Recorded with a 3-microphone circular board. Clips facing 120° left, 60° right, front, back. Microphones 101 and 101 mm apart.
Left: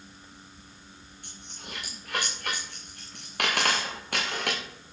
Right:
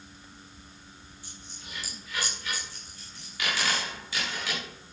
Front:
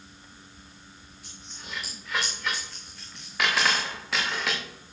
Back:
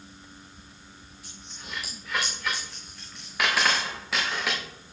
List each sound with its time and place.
1.2 s a dropped coin: 90° left, 4.5 m